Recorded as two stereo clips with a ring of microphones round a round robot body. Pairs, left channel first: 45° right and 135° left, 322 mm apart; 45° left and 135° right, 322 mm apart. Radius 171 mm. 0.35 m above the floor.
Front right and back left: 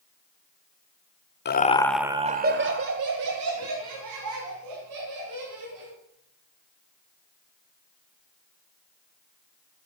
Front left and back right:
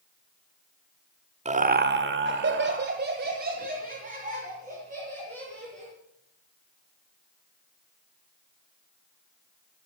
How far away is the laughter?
About 1.1 m.